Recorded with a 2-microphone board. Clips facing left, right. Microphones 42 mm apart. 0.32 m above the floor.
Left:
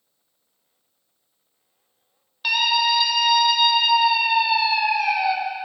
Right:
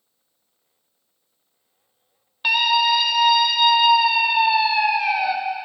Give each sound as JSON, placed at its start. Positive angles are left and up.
{"t": 2.4, "sound": "a scream", "side_deg": -20, "distance_m": 0.9}